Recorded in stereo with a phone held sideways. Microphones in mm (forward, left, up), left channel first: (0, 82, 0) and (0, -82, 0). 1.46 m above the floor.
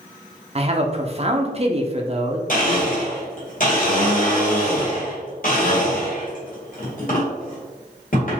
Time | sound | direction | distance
0.6 | a man speaking | 40° right (ahead or behind) | 0.6 m
2.5 | a blender | 55° left (ahead or behind) | 1.9 m